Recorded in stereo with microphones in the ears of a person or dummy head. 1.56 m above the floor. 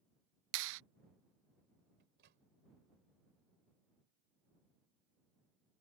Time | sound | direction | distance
0.5 | a clap | 75° right (ahead or behind) | ?
2.0 | a microwave | 55° right (ahead or behind) | ?